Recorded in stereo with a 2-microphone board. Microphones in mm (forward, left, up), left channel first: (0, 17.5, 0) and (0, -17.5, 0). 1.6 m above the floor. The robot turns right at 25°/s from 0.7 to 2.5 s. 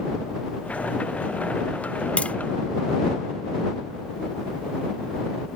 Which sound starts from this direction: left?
Tapping, at 2.2 s.